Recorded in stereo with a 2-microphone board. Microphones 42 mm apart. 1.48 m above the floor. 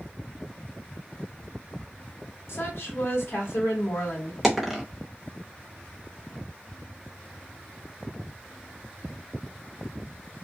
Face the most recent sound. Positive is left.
turn(degrees=-5)  # may be behind; listen again after turning